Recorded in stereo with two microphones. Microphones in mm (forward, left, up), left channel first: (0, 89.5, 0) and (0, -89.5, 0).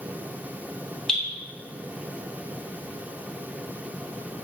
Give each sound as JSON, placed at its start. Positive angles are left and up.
{"t": 1.1, "sound": "dripping", "side_deg": 5, "distance_m": 1.0}